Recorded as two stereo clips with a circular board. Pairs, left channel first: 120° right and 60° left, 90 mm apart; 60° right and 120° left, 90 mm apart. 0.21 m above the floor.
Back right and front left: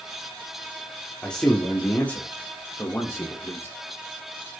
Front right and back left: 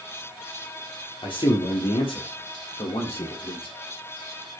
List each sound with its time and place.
1.2 s a man speaking: 40° right, 5.5 m; by 3.8 s 60° right, 6.5 m